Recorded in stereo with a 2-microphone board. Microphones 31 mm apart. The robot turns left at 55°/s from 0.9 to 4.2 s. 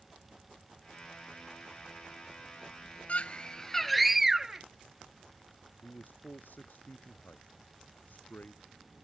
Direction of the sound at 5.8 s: 70° left (ahead or behind).